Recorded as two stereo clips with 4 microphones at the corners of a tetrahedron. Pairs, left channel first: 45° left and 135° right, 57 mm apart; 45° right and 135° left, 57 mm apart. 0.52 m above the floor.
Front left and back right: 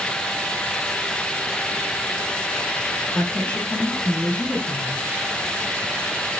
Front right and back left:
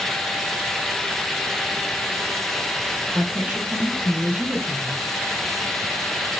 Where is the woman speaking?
100° left, 1.9 m.